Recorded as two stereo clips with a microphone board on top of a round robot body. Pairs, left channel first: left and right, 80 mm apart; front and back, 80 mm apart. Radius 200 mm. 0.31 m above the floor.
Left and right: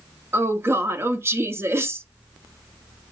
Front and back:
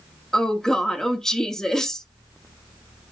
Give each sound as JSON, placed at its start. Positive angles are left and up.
{"t": 0.3, "sound": "a woman speaking", "azimuth_deg": -75, "distance_m": 1.0}